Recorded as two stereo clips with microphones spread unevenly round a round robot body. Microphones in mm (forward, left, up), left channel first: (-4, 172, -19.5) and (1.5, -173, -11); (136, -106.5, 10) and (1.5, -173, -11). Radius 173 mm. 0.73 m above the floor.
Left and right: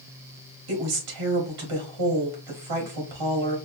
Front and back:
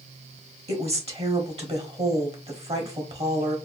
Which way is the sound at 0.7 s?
115° right.